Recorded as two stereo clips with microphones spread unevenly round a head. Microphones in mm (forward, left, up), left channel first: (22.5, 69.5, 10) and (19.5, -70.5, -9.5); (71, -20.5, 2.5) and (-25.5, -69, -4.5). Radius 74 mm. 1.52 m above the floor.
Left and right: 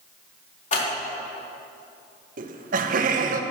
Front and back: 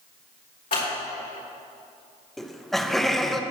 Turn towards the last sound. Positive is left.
turn(degrees=-60)